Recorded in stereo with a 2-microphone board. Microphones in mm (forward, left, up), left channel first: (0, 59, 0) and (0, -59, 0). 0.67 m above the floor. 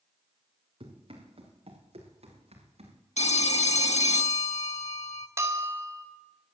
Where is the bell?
25° right (ahead or behind), 2.5 m.